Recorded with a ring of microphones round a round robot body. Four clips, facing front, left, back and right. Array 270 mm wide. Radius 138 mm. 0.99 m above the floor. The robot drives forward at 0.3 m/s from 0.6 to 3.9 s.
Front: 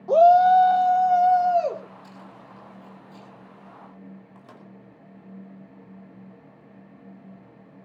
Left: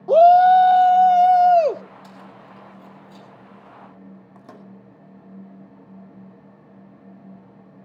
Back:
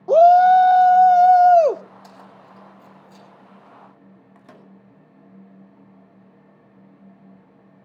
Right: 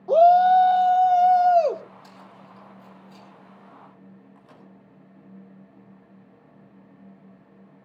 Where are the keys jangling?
165° left, 4.5 m.